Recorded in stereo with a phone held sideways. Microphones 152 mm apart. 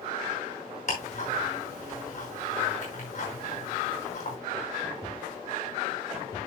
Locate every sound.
0.9 s ticking: 50° left (ahead or behind), 6 m